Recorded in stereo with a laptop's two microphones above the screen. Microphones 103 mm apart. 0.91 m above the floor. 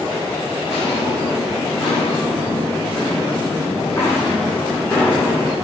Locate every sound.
0.7 s footsteps: 45° left (ahead or behind), 5 m; by 5.5 s 10° left (ahead or behind), 3.5 m